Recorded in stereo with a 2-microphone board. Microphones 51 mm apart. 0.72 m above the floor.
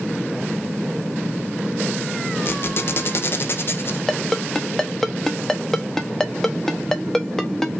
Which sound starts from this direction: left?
A squeak, at 2.5 s.